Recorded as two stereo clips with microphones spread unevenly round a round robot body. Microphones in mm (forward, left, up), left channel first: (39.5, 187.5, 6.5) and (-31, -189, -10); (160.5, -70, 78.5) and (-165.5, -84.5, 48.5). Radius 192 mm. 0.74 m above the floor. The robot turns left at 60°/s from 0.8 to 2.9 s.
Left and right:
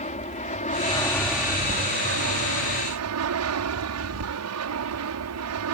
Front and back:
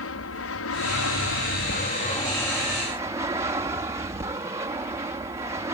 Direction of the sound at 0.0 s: 15° left.